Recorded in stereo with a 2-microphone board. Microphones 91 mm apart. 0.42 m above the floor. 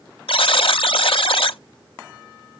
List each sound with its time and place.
0.3 s a buzzer: 75° left (ahead or behind), 0.6 m